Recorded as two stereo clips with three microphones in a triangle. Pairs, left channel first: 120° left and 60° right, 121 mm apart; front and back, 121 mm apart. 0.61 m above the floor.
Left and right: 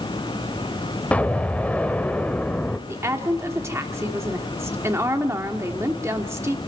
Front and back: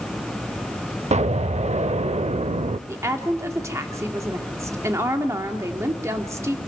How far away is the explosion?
About 0.6 m.